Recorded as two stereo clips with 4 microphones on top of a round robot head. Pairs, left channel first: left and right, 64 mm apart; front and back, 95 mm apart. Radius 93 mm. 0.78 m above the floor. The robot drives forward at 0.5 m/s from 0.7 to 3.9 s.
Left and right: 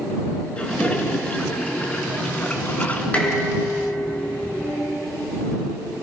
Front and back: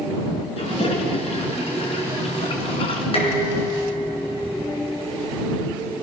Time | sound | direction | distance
0.6 | a toilet flushing | 20° left | 4 m
3.1 | dishes clattering | 20° left | 6 m